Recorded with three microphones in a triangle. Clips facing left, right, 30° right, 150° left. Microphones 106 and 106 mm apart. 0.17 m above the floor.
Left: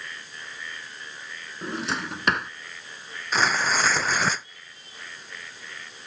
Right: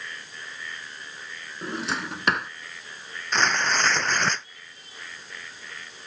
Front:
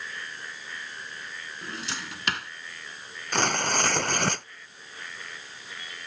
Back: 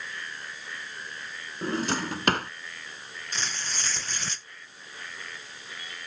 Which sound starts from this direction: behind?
A drawer, at 1.6 s.